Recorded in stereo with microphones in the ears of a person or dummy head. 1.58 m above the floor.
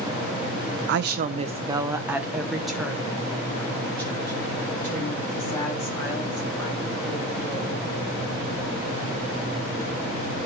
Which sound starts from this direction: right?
A woman speaking, at 0.9 s.